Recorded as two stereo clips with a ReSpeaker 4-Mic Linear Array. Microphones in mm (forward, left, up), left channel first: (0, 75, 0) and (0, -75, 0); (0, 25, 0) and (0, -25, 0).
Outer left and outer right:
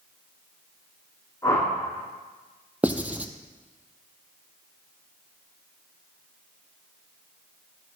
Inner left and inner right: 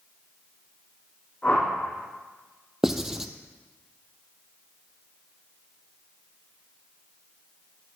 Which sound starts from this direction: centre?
Writing, at 2.8 s.